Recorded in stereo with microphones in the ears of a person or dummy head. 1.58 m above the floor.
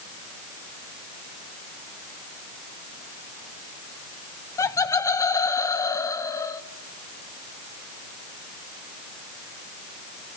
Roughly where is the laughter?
Centre.